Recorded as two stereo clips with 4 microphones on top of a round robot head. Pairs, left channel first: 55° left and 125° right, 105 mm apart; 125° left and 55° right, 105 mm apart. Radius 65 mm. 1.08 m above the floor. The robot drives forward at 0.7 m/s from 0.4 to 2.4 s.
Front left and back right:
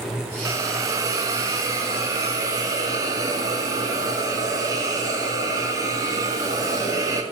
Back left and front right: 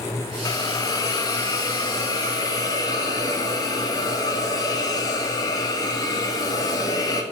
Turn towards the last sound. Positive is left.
turn(degrees=180)